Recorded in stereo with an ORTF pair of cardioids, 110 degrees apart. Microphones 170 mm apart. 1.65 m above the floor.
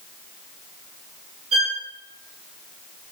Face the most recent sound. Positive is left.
turn(degrees=-40)